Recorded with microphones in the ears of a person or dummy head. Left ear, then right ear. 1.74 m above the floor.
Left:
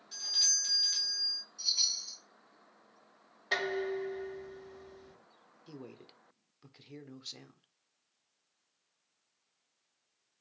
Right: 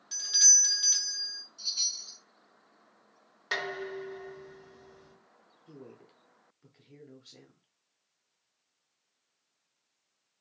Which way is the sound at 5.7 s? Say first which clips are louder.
Left 1 dB; 25° left (ahead or behind).